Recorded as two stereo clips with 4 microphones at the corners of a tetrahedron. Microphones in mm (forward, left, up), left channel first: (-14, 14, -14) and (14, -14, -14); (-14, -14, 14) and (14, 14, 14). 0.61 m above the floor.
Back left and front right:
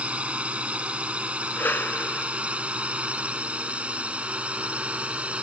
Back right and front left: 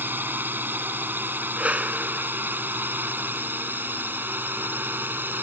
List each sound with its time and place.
0.0 s a drone: 10° left
1.6 s a whoosh: 100° left